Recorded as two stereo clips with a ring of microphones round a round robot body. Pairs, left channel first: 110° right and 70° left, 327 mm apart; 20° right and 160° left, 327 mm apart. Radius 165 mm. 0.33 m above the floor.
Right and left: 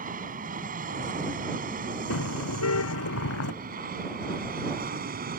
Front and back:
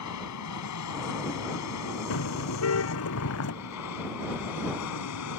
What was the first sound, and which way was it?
An aircraft, 5° left.